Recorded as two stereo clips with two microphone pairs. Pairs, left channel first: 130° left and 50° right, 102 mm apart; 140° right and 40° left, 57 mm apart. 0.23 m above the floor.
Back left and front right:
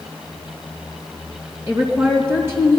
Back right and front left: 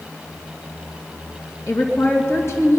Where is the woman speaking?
110° right, 2.5 m.